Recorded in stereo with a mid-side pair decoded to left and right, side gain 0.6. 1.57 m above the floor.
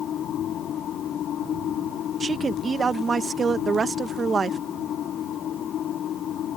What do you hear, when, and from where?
0.0 s a machine running: 50° left
2.2 s a woman speaking: 30° right